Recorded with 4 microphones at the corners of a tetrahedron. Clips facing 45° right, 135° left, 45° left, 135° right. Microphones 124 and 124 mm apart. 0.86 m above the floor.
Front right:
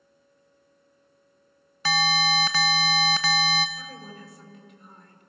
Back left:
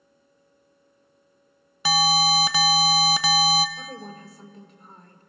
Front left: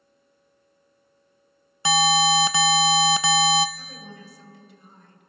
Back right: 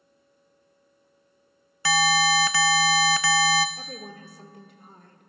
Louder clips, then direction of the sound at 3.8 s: Back left 3 dB, back right 3 dB; 170° right.